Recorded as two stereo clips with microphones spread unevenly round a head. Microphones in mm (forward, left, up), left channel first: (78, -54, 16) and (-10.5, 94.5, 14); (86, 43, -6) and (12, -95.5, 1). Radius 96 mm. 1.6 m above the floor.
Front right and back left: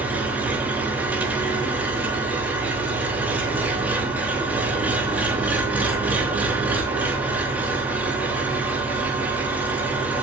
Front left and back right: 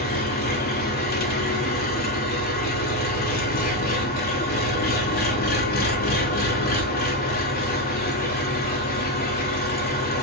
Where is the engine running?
40° left, 3.5 m.